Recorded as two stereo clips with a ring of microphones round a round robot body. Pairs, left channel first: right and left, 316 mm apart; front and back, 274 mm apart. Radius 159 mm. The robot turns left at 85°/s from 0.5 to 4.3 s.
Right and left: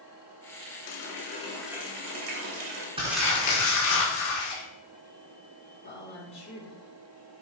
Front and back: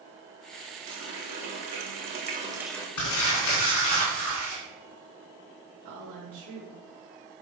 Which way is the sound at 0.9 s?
115° right.